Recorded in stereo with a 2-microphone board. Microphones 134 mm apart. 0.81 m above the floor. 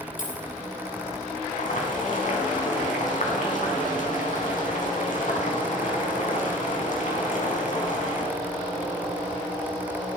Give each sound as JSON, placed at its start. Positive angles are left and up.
{"t": 0.2, "sound": "a dropped coin", "side_deg": 65, "distance_m": 2.5}
{"t": 1.5, "sound": "boiling", "side_deg": 65, "distance_m": 4.5}